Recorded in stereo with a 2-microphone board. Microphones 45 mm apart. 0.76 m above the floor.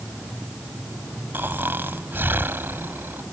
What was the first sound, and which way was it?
Snoring, 55° right (ahead or behind).